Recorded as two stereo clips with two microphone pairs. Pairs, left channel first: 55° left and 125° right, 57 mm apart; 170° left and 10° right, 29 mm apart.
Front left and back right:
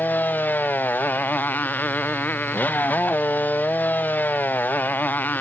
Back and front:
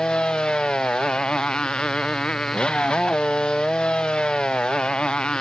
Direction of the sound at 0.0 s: 115° left.